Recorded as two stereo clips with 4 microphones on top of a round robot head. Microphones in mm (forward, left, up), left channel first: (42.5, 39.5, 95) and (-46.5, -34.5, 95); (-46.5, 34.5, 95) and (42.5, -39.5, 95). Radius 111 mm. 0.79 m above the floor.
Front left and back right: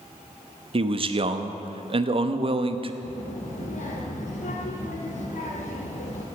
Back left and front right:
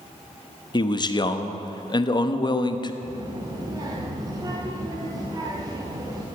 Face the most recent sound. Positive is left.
turn(degrees=20)